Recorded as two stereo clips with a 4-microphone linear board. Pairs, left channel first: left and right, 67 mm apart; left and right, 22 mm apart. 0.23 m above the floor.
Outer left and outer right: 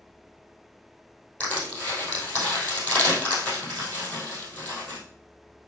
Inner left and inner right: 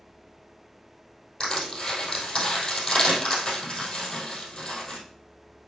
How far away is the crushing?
About 3 m.